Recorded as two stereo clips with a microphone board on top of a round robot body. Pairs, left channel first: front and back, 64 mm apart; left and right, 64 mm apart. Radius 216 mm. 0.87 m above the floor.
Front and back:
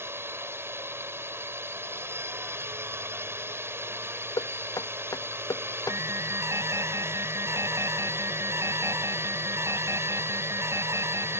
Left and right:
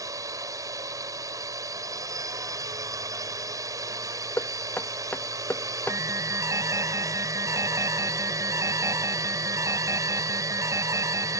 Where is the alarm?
135° right.